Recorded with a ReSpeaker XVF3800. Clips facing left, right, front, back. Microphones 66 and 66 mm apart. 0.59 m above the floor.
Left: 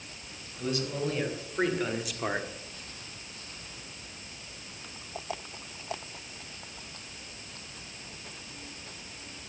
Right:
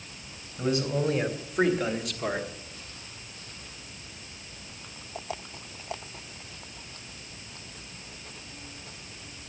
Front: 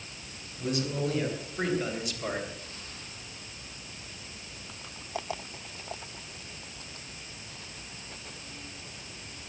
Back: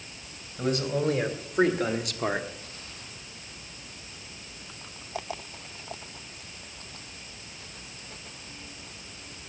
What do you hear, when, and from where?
0.6 s a man speaking: 155° right, 3.5 m; by 2.5 s 145° left, 1.3 m